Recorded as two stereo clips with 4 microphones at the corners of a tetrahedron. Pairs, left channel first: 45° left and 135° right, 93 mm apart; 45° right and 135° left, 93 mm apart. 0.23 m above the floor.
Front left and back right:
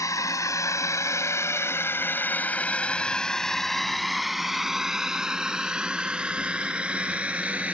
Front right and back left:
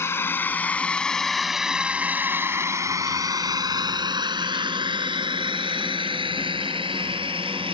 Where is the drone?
10° left; by 7.7 s 150° left.